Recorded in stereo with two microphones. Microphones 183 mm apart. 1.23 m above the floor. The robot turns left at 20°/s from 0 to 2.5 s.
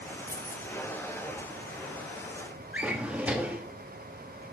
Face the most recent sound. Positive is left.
turn(degrees=-5)  # may be behind; listen again after turning